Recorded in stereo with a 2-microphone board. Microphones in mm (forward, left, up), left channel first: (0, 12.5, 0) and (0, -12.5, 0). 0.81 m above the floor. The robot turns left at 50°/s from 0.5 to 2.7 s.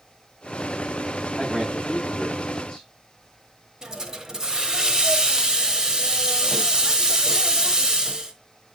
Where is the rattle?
No rattle in this recording.